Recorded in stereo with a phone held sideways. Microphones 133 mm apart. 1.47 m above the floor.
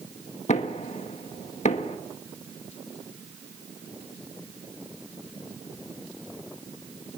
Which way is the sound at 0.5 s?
65° left (ahead or behind).